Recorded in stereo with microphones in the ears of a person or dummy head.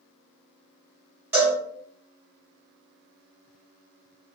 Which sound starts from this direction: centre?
A cowbell, at 1.3 s.